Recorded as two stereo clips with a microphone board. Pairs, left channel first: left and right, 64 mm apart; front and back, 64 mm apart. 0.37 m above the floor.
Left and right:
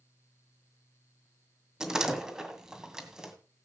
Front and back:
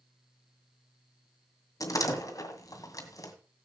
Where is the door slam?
10° right, 2.0 m.